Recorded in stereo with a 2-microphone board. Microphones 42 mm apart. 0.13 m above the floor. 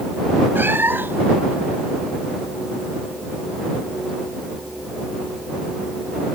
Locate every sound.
0.6 s a cat meowing: 55° right (ahead or behind)